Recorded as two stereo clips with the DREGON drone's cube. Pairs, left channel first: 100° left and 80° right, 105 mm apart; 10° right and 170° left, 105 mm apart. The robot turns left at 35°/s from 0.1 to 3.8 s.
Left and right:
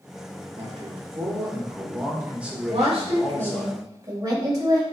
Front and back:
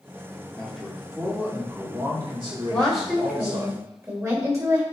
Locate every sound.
0.6 s a man speaking: 90° right, 3 m; by 3.7 s 160° left, 3 m
2.7 s a woman speaking: 90° right, 3 m; by 4.8 s 130° right, 3 m